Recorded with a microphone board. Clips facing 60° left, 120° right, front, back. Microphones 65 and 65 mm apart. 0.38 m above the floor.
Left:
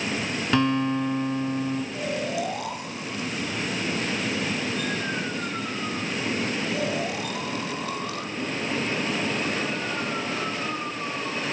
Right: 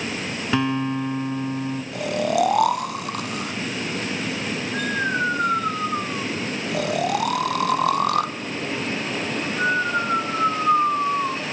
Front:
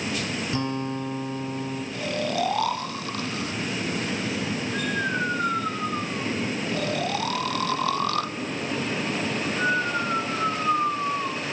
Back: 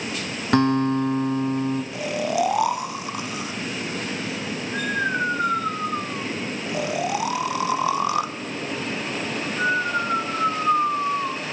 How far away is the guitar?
About 2.5 m.